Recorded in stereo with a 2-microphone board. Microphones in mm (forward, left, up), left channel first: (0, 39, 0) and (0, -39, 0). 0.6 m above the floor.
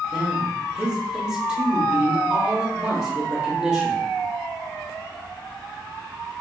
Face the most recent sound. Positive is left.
turn(degrees=-10)  # may be behind; listen again after turning